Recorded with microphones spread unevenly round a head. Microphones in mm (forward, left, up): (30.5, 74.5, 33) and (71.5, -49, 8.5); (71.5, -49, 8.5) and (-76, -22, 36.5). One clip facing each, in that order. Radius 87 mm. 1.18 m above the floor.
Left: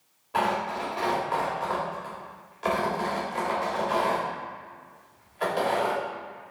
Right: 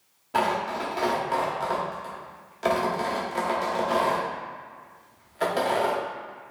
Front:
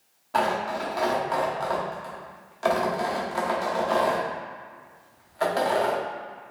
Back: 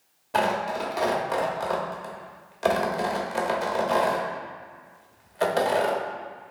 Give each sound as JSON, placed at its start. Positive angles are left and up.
{"t": 0.3, "sound": "tearing paper", "azimuth_deg": -135, "distance_m": 0.9}